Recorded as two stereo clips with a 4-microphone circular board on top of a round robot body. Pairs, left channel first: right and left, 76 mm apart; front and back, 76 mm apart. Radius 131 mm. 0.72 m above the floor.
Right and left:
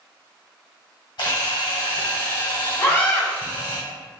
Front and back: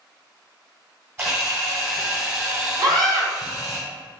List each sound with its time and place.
1.2 s a camera shutter: 125° right, 1.4 m
2.8 s a scream: 155° right, 1.4 m